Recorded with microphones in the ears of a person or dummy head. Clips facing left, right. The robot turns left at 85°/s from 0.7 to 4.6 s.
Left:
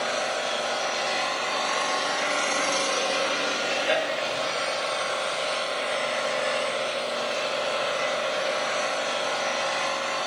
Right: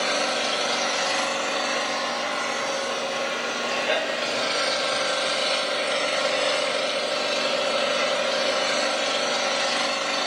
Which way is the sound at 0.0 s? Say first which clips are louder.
Right 2 dB; 75° right.